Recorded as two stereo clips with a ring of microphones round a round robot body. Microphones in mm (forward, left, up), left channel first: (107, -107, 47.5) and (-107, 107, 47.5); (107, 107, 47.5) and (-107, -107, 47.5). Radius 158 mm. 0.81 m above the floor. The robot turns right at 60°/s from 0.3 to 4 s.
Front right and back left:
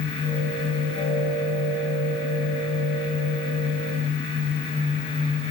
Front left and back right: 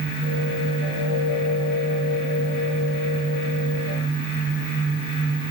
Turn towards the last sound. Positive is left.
No sound to turn to.